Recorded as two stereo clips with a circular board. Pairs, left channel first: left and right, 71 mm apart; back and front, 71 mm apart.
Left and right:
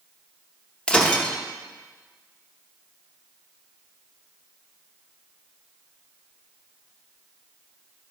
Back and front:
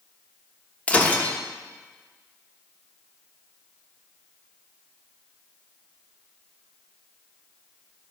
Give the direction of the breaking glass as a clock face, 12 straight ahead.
7 o'clock.